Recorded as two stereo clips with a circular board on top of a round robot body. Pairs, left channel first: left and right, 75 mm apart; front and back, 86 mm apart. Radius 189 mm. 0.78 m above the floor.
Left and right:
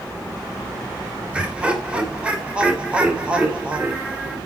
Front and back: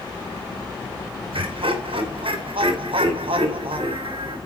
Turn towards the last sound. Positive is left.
turn(degrees=-165)